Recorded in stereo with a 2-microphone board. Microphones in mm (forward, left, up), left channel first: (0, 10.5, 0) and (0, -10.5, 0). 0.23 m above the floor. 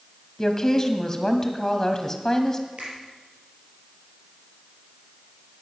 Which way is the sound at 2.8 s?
60° right (ahead or behind).